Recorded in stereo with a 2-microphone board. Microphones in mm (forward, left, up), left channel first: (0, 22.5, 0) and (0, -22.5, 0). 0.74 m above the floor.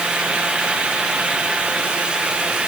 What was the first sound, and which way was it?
Only background noise.